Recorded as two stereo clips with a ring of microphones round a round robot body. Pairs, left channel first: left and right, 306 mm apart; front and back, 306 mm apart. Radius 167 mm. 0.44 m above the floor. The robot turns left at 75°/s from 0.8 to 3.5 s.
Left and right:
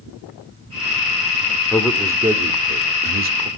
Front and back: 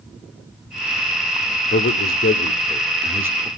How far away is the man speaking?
About 1.0 m.